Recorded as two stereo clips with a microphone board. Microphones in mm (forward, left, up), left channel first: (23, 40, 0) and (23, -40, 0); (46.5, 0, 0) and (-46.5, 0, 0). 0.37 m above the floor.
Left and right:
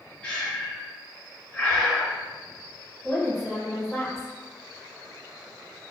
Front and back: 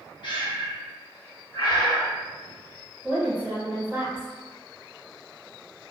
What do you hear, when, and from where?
0.2 s breathing: 15° left, 0.6 m
3.0 s a woman speaking: 175° left, 1.2 m